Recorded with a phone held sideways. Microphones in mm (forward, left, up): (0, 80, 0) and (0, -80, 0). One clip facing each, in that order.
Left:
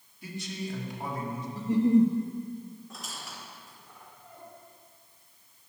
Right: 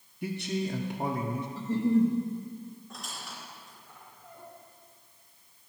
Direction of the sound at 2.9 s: Centre (ahead or behind).